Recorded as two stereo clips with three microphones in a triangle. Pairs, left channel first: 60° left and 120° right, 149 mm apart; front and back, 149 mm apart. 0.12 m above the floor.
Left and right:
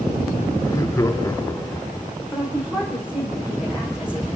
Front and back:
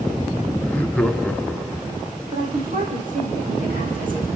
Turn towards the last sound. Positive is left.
turn(degrees=155)